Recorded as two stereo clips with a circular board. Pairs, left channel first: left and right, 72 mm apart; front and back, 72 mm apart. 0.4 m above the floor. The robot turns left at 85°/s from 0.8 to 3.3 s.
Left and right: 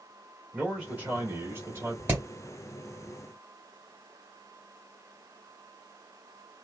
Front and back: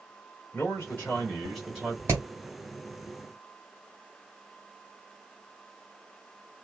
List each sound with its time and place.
0.5 s a man speaking: 25° right, 1.7 m; by 2.0 s 125° right, 1.7 m
2.1 s hammering: 140° right, 1.7 m; by 2.2 s 150° right, 1.7 m